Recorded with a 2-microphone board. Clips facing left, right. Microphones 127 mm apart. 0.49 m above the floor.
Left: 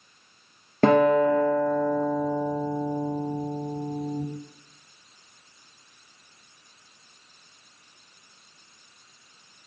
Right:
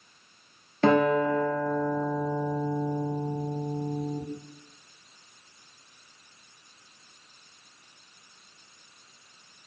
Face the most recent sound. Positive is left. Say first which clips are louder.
# left 4 dB
turn(degrees=50)  # may be behind; listen again after turning